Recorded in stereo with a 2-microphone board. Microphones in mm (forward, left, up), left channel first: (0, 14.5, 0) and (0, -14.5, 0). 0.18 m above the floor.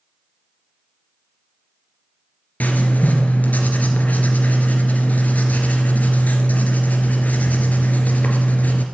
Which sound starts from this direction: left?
Writing, at 2.6 s.